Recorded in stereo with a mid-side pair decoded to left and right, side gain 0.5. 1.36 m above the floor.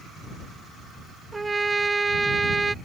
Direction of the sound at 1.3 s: 15° right.